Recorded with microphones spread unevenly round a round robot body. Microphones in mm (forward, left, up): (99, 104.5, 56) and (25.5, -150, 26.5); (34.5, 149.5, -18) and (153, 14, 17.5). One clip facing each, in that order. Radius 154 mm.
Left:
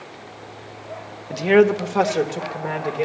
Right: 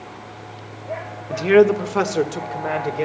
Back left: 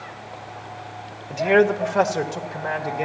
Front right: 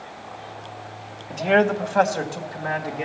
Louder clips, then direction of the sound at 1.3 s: Right 2 dB, back left 2 dB; 175° right.